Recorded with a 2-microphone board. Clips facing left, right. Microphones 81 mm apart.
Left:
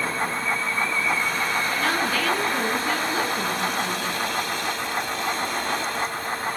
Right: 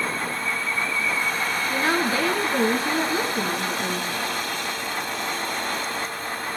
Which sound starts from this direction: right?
A woman speaking, at 1.7 s.